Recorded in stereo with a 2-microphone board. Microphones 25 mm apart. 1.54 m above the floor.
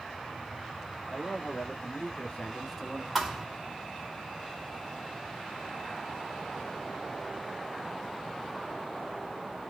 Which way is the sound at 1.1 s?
75° left (ahead or behind).